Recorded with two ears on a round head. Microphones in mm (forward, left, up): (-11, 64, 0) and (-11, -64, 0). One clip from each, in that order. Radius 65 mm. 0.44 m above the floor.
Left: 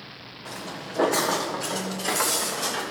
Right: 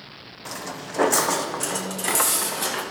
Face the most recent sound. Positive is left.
turn(degrees=-65)  # may be behind; listen again after turning